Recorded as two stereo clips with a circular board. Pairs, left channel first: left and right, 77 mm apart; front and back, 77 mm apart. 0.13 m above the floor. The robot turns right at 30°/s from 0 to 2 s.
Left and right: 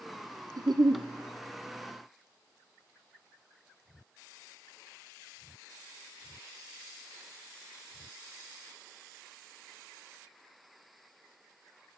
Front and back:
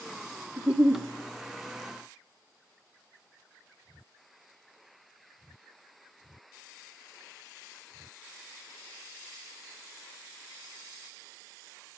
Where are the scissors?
No scissors in this recording.